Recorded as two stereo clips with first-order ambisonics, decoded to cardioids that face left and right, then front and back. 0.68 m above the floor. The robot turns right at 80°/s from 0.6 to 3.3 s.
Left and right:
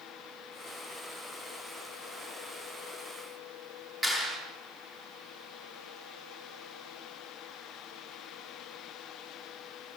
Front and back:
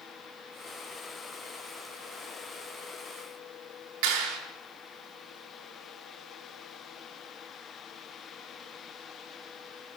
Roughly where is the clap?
Behind.